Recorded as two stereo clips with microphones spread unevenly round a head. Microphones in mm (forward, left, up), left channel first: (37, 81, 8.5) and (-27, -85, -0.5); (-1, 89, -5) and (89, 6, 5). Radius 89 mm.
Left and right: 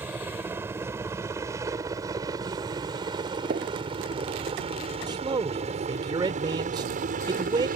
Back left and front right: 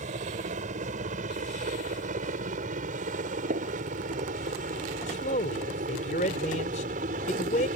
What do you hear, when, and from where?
0.0 s a helicopter: 30° right; by 7.8 s 70° right
3.5 s a gunshot: 65° right
5.1 s a man speaking: straight behind